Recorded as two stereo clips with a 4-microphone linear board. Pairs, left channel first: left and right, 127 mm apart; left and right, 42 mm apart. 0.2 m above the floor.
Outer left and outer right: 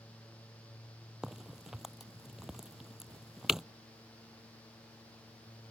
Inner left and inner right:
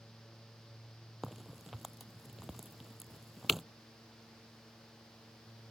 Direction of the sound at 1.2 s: 5° right (ahead or behind).